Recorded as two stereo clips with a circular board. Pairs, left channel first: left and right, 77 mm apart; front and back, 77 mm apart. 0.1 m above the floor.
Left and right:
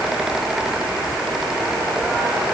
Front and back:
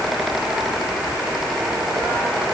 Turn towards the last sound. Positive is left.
No sound to turn to.